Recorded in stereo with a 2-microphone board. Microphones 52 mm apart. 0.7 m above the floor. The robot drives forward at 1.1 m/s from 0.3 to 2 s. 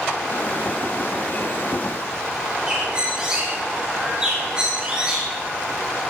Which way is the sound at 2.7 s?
20° right (ahead or behind).